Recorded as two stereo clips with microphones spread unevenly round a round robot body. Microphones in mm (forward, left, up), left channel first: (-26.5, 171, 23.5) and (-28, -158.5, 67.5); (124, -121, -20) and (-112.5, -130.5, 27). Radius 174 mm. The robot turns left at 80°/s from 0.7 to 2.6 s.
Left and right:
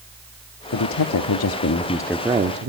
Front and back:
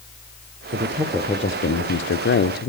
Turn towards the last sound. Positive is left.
turn(degrees=-30)